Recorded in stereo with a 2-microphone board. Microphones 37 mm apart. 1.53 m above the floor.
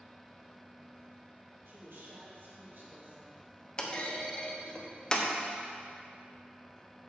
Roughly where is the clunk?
Left.